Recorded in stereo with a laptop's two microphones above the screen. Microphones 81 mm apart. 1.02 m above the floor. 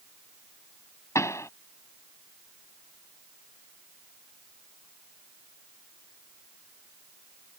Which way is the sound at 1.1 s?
35° left (ahead or behind).